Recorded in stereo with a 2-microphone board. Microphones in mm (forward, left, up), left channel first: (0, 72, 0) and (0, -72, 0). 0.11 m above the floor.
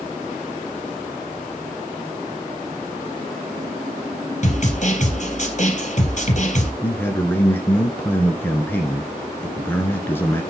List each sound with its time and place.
4.4 s a snare drum: 50° left (ahead or behind), 3 m
6.8 s a man speaking: 15° left (ahead or behind), 1.5 m